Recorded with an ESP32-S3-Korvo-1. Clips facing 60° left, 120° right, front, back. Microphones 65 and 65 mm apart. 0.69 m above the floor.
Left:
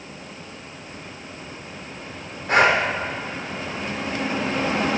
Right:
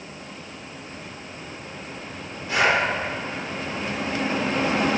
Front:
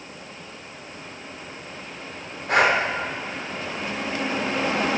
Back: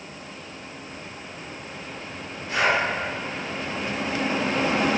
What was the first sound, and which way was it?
Breathing, 25° left.